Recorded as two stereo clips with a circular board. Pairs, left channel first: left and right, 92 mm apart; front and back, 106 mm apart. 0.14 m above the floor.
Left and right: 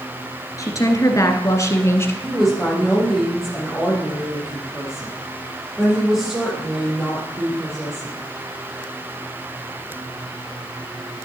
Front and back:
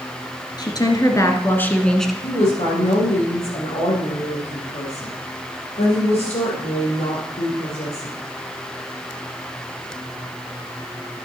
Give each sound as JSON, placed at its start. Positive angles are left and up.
{"t": 0.6, "sound": "a woman speaking", "azimuth_deg": 45, "distance_m": 1.8}
{"t": 2.2, "sound": "a woman speaking", "azimuth_deg": -5, "distance_m": 4.0}